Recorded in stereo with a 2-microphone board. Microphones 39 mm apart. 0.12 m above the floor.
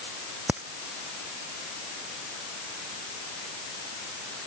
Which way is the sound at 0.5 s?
40° right (ahead or behind).